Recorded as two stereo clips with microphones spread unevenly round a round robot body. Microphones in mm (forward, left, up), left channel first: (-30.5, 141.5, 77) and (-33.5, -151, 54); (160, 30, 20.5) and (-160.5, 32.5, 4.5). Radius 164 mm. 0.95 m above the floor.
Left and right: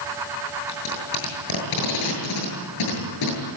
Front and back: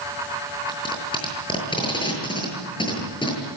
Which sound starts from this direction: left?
Tape being pulled, at 0.7 s.